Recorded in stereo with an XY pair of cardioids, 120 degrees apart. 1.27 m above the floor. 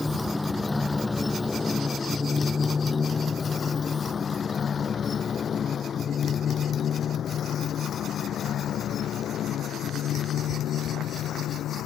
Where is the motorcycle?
15° left; by 11.9 s 65° left.